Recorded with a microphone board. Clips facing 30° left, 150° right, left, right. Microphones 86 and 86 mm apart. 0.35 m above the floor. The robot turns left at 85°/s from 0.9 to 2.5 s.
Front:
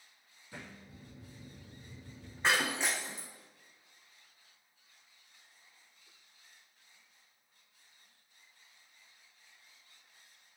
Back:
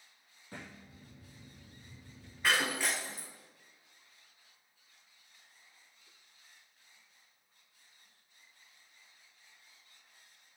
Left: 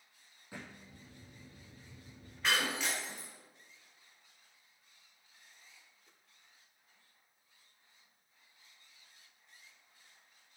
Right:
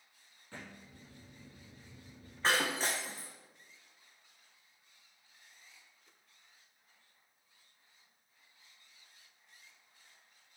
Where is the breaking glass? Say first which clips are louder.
Even, right 2 dB; 30° right, 2 m; by 3.3 s 35° right, 2 m.